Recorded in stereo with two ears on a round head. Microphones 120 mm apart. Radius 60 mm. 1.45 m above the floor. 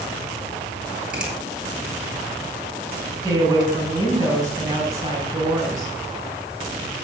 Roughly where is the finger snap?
Centre.